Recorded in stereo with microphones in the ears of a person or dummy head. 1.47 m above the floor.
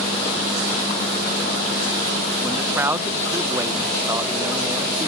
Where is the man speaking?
20° right (ahead or behind).